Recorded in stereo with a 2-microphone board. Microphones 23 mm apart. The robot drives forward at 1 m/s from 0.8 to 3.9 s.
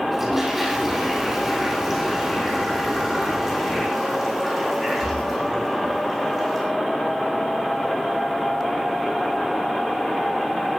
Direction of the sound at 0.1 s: 10° right (ahead or behind).